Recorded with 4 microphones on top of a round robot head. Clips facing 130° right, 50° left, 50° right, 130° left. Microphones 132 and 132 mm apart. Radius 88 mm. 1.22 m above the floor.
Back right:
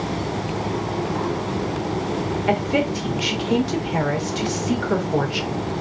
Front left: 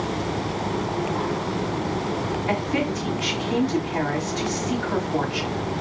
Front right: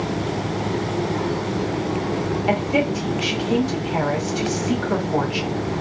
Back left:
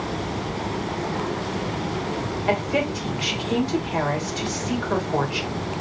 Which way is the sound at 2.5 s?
130° right.